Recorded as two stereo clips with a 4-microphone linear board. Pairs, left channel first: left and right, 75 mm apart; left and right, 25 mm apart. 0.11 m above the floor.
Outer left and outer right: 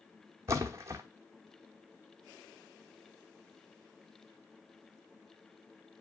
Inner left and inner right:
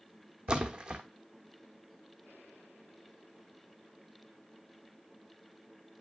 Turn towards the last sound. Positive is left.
turn(degrees=-40)  # may be behind; listen again after turning